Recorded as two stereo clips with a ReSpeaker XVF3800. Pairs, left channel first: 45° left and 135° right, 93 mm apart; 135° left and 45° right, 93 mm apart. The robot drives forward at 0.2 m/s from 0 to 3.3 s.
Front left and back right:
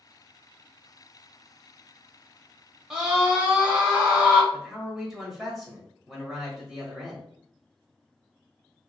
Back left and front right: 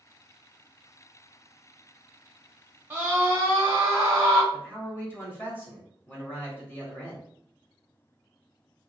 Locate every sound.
2.9 s a scream: 60° right, 1.0 m; by 4.4 s 70° right, 1.0 m
4.5 s a man speaking: 140° left, 0.9 m